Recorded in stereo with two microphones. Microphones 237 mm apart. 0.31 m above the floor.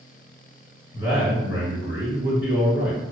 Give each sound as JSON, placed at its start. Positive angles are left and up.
{"t": 0.9, "sound": "a man speaking", "side_deg": 55, "distance_m": 1.9}